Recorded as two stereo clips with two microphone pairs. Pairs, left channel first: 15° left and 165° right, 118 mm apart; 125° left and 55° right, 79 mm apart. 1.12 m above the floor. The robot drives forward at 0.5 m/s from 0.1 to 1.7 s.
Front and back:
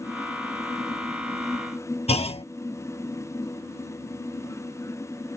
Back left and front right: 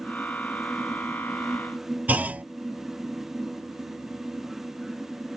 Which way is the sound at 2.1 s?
10° left.